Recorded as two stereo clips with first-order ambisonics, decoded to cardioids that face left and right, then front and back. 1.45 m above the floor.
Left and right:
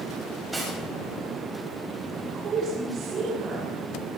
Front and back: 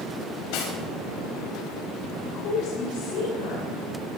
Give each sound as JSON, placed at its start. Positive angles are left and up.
{"t": 0.5, "sound": "cutlery clinking", "azimuth_deg": -10, "distance_m": 5.0}
{"t": 2.1, "sound": "a woman speaking", "azimuth_deg": -35, "distance_m": 5.5}